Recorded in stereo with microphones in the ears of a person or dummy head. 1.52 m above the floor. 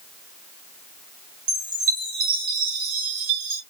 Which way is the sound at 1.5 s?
40° right (ahead or behind).